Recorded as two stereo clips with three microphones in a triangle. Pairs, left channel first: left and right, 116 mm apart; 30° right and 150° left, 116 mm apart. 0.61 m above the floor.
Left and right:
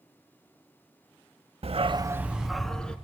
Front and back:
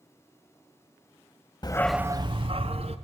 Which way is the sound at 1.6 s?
75° right.